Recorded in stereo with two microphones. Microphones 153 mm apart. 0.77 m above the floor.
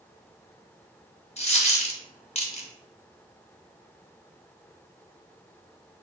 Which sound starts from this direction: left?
A dropped coin, at 1.4 s.